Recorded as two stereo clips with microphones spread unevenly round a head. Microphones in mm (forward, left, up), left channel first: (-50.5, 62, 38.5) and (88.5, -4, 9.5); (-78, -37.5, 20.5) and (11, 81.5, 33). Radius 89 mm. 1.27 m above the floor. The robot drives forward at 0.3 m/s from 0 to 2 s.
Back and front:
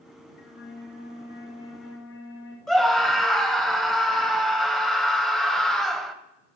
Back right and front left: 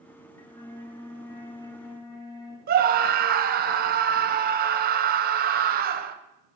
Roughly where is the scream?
Ahead left.